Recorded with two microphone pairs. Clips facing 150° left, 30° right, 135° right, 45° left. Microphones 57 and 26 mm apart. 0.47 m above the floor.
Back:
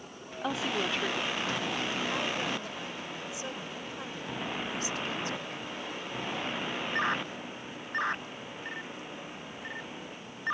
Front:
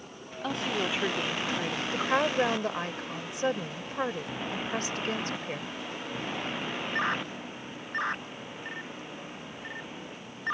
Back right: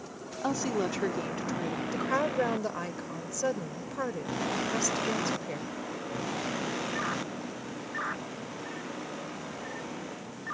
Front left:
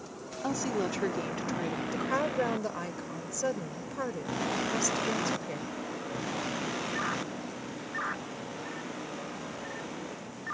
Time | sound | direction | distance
0.4 | a woman speaking | 160° right | ?
1.9 | a woman speaking | 55° right | ?